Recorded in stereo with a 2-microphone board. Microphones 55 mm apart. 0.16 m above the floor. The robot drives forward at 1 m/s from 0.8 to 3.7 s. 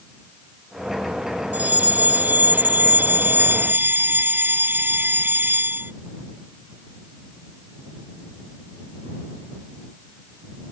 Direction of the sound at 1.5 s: 30° right (ahead or behind).